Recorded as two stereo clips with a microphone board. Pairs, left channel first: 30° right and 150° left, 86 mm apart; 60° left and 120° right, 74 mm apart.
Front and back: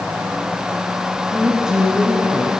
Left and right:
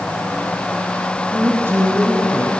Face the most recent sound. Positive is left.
turn(degrees=-135)